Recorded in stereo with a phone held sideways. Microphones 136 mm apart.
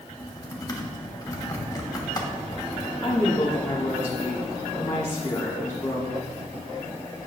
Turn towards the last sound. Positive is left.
turn(degrees=20)  # may be behind; listen again after turning